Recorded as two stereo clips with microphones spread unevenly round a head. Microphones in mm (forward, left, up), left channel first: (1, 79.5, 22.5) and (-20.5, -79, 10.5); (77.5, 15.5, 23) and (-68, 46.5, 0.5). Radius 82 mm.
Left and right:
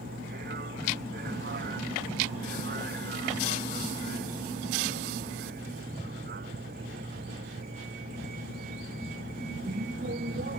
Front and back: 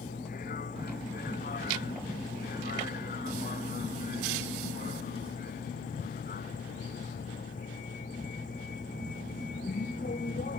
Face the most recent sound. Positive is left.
turn(degrees=-60)